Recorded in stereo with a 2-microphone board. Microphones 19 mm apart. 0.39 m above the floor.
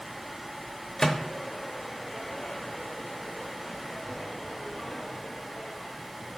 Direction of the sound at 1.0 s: 30° left (ahead or behind).